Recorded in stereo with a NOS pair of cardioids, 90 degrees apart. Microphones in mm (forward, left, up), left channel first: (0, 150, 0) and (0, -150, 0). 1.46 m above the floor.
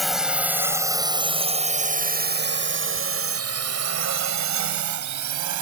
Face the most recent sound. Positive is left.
turn(degrees=-80)